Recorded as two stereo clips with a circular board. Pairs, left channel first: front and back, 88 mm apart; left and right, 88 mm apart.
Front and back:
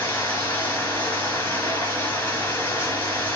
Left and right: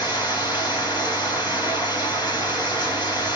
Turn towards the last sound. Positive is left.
turn(degrees=65)